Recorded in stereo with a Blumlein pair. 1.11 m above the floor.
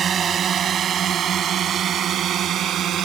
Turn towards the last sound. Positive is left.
turn(degrees=-30)